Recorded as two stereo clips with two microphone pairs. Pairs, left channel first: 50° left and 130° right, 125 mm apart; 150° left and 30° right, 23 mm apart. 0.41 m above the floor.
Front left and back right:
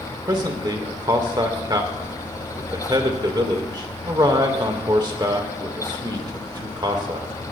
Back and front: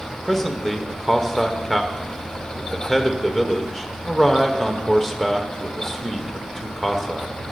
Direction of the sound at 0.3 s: 125° right.